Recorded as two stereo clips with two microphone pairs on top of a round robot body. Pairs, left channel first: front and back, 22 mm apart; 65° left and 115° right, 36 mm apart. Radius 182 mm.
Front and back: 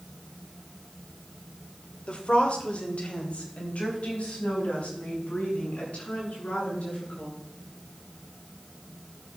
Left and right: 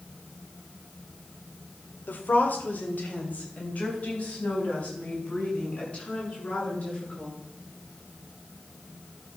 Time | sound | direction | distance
2.1 | a woman speaking | 35° left | 2 m